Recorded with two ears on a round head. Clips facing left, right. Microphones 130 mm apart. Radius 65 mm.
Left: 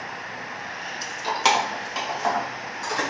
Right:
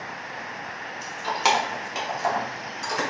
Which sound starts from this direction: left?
Keys jangling, at 1.0 s.